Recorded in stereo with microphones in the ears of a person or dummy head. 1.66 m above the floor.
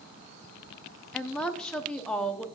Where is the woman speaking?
Centre (ahead or behind), 0.9 m.